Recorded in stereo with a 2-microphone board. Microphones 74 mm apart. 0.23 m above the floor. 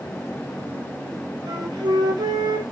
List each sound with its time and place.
1.5 s a flute: 75° right (ahead or behind), 1.4 m